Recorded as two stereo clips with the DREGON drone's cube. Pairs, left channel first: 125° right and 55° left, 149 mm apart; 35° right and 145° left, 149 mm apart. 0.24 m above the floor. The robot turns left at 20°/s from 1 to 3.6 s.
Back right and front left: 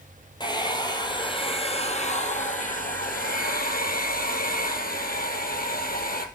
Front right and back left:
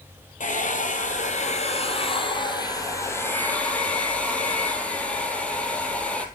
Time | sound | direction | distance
0.4 | a hair dryer | 65° right | 2 m